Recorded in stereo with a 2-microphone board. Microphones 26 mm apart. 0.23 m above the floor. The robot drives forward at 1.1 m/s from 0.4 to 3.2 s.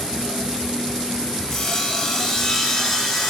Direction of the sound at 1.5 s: 20° left (ahead or behind).